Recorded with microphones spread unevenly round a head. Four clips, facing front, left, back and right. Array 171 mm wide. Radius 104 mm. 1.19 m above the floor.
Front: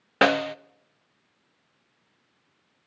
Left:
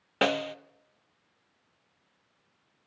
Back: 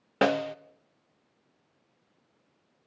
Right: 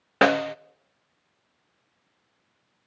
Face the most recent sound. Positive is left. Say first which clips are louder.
# right 7 dB, front 4 dB
turn(degrees=-25)